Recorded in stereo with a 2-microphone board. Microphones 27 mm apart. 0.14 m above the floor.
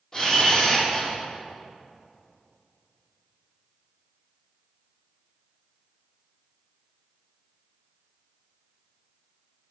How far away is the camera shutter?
About 2.5 m.